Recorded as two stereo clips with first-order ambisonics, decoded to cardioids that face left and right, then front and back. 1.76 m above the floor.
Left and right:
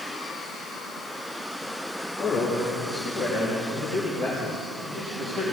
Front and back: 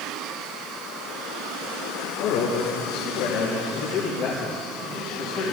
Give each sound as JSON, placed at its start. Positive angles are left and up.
{"t": 2.2, "sound": "a man speaking", "azimuth_deg": 15, "distance_m": 1.8}